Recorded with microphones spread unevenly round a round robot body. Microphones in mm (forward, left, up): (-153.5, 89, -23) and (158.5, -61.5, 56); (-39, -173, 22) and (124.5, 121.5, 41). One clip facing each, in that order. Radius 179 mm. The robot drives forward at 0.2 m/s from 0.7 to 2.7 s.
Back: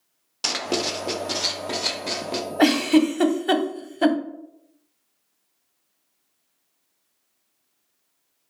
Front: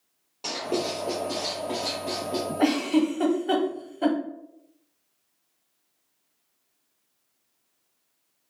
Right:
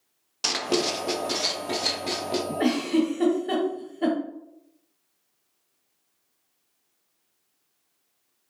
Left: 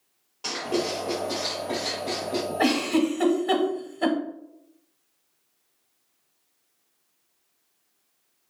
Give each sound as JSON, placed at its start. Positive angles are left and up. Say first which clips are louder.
{"t": 0.4, "sound": "writing", "louder": "back 1 dB, right 1 dB", "azimuth_deg": -155, "distance_m": 0.5}
{"t": 2.6, "sound": "a giggle", "louder": "back 5 dB, even", "azimuth_deg": 125, "distance_m": 0.7}